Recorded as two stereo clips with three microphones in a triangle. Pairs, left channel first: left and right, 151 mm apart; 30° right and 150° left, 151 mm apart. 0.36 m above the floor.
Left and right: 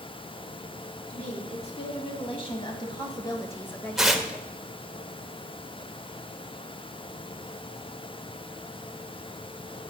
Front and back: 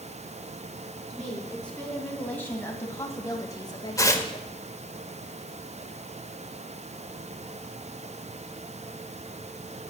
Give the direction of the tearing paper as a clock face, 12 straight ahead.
12 o'clock.